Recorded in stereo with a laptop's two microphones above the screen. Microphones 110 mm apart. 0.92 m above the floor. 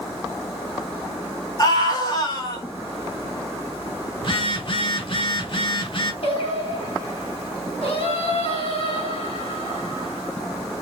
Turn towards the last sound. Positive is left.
turn(degrees=65)  # may be behind; listen again after turning